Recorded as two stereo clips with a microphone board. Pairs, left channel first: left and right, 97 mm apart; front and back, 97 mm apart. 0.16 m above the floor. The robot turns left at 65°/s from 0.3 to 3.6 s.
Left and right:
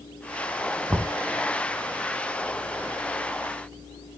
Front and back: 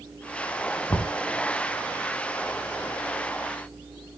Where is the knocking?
30° right, 1.0 m; by 1.1 s 45° right, 1.0 m.